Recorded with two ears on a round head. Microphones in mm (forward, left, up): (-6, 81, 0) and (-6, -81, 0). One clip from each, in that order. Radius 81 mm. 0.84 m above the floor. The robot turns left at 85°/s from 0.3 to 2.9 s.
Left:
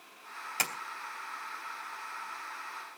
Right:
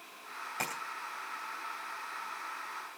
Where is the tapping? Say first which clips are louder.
Left 4 dB; 85° left, 2.5 m; by 0.7 s 75° left (ahead or behind), 2.5 m.